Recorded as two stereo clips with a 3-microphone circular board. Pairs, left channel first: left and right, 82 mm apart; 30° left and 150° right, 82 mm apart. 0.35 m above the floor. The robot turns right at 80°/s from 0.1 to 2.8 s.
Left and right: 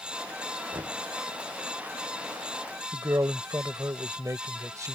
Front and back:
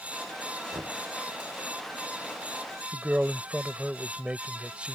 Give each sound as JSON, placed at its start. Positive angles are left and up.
{"t": 0.7, "sound": "knocking", "azimuth_deg": -120}
{"t": 2.9, "sound": "a man speaking", "azimuth_deg": -80}